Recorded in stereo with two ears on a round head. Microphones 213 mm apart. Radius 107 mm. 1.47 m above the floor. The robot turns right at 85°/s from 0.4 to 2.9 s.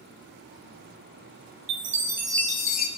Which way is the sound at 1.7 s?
50° right.